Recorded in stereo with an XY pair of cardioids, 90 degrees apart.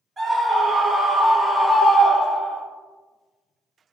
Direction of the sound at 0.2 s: 25° right.